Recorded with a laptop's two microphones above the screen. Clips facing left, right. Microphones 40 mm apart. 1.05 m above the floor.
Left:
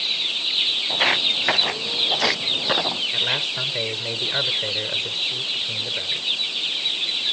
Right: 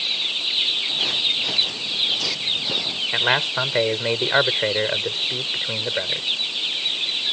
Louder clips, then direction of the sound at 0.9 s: Left 3 dB; 70° left (ahead or behind).